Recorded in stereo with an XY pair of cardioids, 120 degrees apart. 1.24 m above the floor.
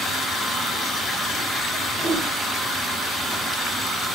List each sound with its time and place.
2.0 s a whoosh: 35° right, 0.9 m